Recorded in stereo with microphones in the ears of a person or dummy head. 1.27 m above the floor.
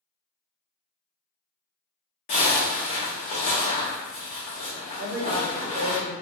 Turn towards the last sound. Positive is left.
turn(degrees=-30)  # may be behind; listen again after turning